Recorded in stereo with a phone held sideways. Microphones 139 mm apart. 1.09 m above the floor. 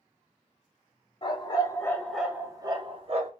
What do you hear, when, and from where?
1.2 s a dog barking: 40° left (ahead or behind), 0.8 m; by 3.3 s 50° right (ahead or behind), 0.8 m